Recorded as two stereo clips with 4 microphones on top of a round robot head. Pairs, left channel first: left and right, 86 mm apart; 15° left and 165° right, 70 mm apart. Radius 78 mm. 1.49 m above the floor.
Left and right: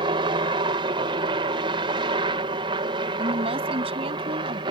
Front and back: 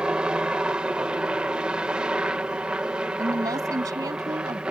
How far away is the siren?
I don't hear a siren.